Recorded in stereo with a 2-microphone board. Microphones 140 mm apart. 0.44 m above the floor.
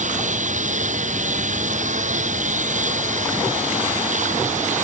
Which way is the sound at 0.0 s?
60° right (ahead or behind).